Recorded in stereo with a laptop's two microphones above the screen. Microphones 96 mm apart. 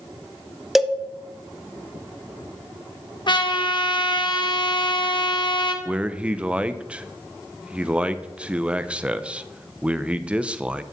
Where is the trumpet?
55° left (ahead or behind), 0.8 m.